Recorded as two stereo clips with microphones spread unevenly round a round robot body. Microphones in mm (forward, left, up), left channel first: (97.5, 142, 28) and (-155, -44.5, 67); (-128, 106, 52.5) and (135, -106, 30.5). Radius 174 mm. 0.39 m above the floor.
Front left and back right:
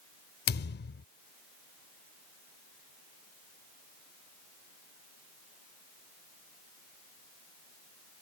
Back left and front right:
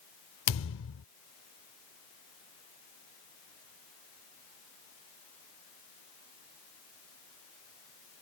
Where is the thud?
90° left.